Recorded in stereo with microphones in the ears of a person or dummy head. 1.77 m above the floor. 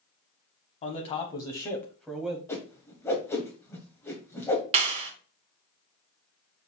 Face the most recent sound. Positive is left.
turn(degrees=-35)  # may be behind; listen again after turning